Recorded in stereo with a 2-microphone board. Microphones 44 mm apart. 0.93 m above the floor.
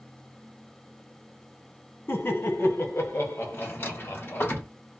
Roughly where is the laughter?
Left.